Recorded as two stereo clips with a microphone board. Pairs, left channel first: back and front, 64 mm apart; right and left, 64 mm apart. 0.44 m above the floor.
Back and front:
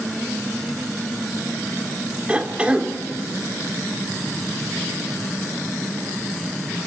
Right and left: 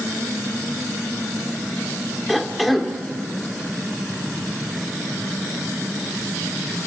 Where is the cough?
5° right, 1.2 m.